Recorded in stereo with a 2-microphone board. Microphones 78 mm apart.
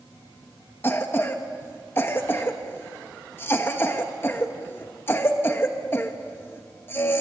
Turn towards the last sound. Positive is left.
turn(degrees=30)  # may be behind; listen again after turning